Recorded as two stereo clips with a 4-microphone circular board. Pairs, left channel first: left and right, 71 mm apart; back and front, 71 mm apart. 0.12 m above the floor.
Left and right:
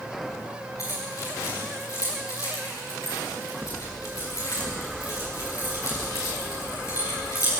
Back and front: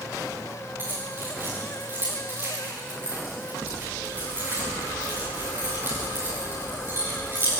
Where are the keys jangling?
55° left, 10 m.